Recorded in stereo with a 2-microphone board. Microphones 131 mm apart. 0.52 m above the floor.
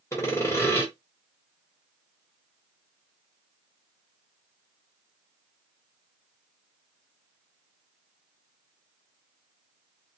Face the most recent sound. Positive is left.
turn(degrees=20)  # may be behind; listen again after turning